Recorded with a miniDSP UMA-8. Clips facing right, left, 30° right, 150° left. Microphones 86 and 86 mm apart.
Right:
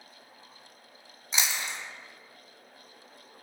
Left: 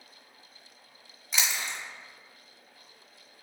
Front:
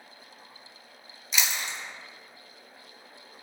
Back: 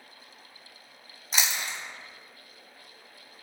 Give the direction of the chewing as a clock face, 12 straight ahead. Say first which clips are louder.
Even, even; 5 o'clock.